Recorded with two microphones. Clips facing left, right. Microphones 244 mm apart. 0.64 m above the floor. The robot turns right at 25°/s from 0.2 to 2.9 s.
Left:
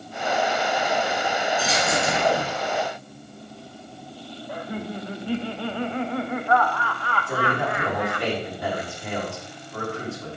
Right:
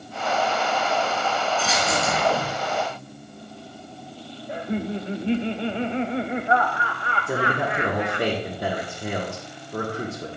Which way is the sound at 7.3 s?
40° right (ahead or behind).